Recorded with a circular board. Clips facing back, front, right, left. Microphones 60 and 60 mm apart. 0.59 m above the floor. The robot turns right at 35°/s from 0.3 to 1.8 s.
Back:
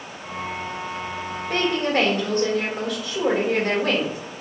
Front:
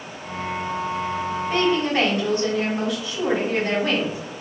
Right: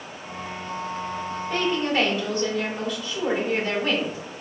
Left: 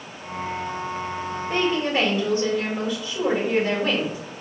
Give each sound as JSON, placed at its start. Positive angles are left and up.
{"t": 1.5, "sound": "a woman speaking", "azimuth_deg": 145, "distance_m": 2.0}